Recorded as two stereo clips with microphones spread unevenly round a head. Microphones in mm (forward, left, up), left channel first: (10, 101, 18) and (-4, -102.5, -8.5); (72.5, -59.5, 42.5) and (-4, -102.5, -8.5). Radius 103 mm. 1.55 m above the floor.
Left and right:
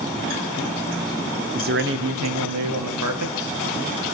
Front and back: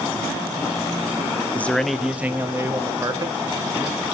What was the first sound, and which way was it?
A man speaking, 40° right.